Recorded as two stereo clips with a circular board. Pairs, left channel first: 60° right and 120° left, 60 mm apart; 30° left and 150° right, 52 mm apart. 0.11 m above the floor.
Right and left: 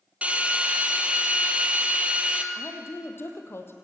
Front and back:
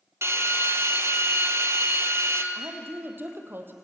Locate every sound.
0.2 s a drill: 175° right, 2.5 m
2.5 s a woman speaking: 105° right, 3 m